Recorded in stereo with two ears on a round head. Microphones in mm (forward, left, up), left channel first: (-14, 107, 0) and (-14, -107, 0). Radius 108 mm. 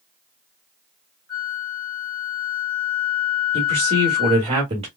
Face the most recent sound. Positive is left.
turn(degrees=-25)  # may be behind; listen again after turning